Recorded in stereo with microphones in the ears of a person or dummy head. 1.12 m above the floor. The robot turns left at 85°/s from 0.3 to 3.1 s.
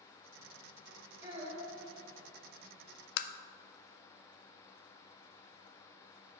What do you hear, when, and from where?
1.2 s a child speaking: 15° right, 3 m; by 1.8 s 65° right, 3 m
3.2 s tapping: 65° left (ahead or behind), 0.6 m